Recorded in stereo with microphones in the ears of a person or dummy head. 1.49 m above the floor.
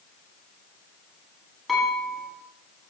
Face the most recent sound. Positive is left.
turn(degrees=0)  # may be behind; listen again after turning